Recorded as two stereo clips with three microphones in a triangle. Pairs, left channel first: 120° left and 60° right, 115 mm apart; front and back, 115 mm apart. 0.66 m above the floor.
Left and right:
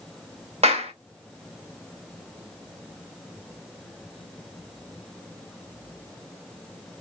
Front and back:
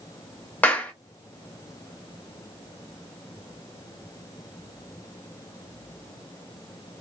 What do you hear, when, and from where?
0.6 s a clap: 75° right, 0.9 m